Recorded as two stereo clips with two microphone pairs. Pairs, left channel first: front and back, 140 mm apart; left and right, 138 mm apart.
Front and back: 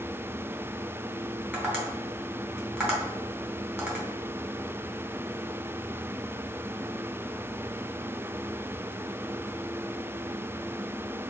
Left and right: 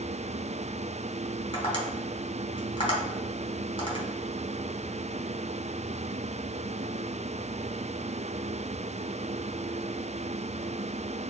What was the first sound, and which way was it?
Tapping, 110° left.